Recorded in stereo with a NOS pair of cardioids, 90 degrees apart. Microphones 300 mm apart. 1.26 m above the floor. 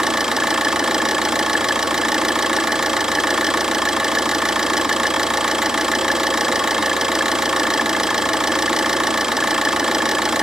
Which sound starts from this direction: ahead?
An engine running, at 0.0 s.